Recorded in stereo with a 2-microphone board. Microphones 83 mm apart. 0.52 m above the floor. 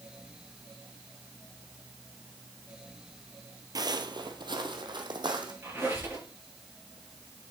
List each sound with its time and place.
3.8 s footsteps: 50° right (ahead or behind), 0.7 m; by 5.5 s 60° right (ahead or behind), 1.7 m
5.6 s a squeak: 25° right (ahead or behind), 5.5 m